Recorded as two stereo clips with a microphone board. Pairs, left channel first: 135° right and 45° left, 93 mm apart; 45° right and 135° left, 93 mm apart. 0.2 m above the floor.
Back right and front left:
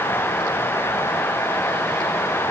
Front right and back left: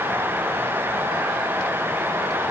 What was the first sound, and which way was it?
Only background noise.